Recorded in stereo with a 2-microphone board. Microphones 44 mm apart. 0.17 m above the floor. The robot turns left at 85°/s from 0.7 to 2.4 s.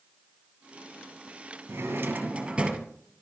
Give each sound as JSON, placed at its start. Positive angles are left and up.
{"t": 1.7, "sound": "a drawer", "azimuth_deg": -100, "distance_m": 1.3}